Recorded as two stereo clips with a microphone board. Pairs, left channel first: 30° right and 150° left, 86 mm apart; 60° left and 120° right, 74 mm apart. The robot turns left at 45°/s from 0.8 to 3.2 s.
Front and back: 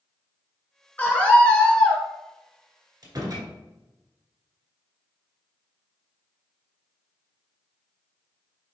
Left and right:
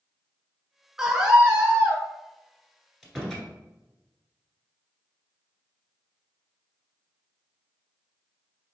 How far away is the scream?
About 1.7 m.